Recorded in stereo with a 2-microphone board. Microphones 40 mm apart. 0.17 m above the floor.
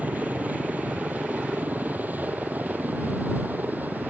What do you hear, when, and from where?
0.0 s a helicopter: 40° right (ahead or behind); by 4.1 s 45° right (ahead or behind)